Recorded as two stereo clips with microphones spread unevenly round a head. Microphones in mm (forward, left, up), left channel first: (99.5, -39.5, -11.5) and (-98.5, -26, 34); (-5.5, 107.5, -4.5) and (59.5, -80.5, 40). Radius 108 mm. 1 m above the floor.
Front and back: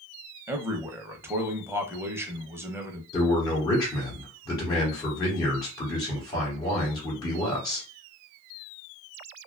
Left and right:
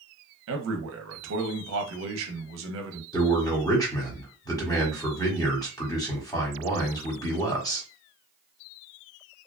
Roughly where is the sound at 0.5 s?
Right.